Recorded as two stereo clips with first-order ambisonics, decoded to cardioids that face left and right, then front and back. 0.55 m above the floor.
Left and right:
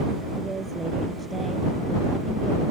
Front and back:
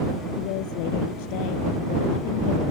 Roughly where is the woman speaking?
Ahead.